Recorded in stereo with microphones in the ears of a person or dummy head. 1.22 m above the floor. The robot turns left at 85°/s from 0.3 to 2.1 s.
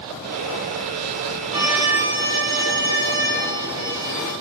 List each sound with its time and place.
1.5 s a violin: 50° right, 1.0 m; by 4.3 s 100° right, 1.0 m